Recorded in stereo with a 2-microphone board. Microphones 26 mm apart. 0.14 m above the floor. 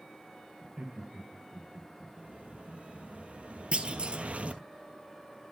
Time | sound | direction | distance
0.6 | laughter | 50° right (ahead or behind) | 2.0 m
2.2 | an explosion | 60° right (ahead or behind) | 1.4 m
3.7 | a clunk | 50° right (ahead or behind) | 1.0 m